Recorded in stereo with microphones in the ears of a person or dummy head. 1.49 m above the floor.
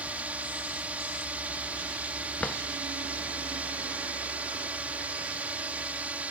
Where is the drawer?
5° left (ahead or behind).